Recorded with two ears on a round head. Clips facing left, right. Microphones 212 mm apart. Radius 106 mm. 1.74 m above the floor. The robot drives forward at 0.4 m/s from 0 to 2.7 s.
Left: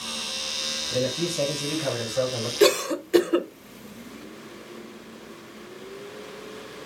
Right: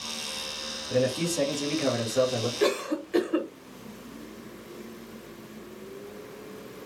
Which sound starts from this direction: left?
A cough, at 2.6 s.